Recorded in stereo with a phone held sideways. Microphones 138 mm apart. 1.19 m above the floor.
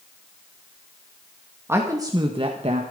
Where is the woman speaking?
15° right (ahead or behind), 2 m; by 2.8 s 55° right (ahead or behind), 1.7 m.